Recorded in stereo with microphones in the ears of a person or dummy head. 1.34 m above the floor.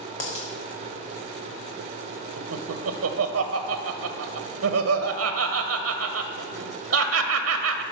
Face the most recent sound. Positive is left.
turn(degrees=-75)  # may be behind; listen again after turning